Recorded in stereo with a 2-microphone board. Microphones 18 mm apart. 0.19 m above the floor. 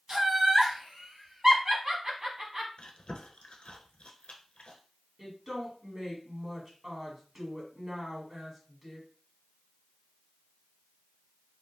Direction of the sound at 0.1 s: 30° right (ahead or behind).